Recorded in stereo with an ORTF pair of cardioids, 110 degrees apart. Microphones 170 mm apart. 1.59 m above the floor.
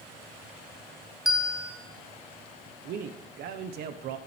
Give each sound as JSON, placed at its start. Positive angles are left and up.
{"t": 1.2, "sound": "a bell", "azimuth_deg": -5, "distance_m": 5.0}
{"t": 2.9, "sound": "a man speaking", "azimuth_deg": -70, "distance_m": 1.1}